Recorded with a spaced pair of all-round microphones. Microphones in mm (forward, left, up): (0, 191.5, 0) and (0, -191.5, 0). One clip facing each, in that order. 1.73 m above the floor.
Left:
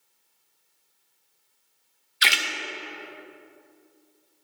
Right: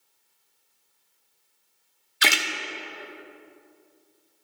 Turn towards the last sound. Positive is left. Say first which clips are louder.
# right 5 dB
turn(degrees=-55)  # may be behind; listen again after turning